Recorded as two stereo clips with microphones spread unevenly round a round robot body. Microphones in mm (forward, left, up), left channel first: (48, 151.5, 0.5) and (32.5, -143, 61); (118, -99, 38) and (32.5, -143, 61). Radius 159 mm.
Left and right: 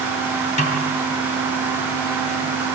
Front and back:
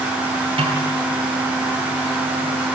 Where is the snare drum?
150° left, 3 m.